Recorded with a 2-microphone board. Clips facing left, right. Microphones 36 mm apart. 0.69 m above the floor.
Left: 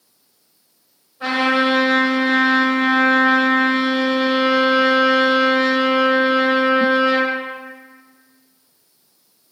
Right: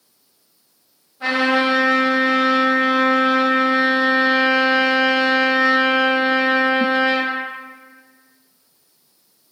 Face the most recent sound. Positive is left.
turn(degrees=0)  # may be behind; listen again after turning